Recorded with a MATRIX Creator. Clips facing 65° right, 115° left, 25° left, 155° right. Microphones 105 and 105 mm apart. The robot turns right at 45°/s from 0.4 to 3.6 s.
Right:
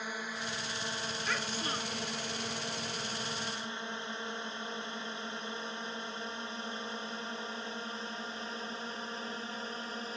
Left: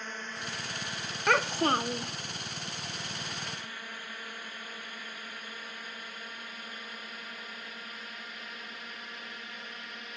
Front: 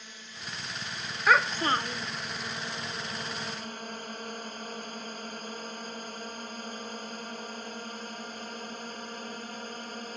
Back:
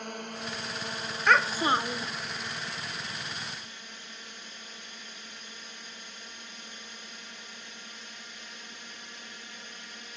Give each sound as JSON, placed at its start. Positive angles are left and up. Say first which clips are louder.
{"t": 0.0, "sound": "a drone", "louder": "right 1 dB, back 9 dB", "azimuth_deg": -145}
{"t": 1.3, "sound": "a child speaking", "louder": "left 13 dB, even", "azimuth_deg": 105}